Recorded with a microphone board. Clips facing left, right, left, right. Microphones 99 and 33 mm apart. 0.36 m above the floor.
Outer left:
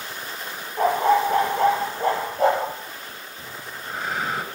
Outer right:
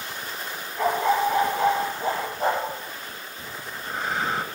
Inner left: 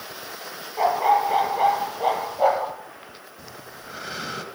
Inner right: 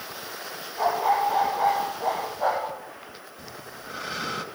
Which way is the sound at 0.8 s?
50° left (ahead or behind).